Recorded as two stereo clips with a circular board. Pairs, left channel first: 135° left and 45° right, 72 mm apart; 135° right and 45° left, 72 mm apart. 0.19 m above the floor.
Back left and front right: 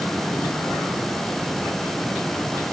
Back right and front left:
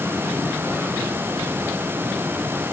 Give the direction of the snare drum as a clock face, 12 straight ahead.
No snare drum in this recording.